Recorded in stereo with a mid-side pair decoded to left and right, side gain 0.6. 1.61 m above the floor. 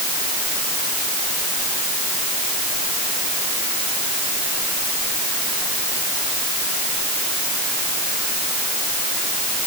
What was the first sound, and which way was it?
Only background noise.